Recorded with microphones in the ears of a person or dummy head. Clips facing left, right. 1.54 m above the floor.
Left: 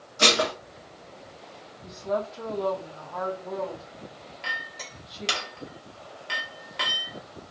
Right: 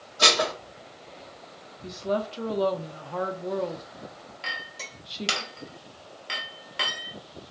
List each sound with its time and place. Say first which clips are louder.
0.2 s dishes clattering: left 1 dB; 30° left (ahead or behind), 1.3 m
1.8 s a woman speaking: right 1 dB; 40° right (ahead or behind), 0.6 m
4.4 s a clink: left 1 dB; centre (ahead or behind), 1.0 m